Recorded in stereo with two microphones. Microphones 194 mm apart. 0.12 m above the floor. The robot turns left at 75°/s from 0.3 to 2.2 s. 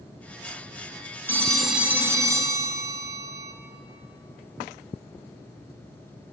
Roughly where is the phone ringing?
Centre.